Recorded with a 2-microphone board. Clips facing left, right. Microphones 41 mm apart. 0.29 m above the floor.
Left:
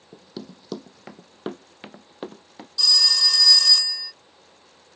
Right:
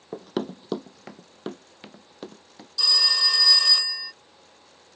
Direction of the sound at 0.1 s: 70° right (ahead or behind).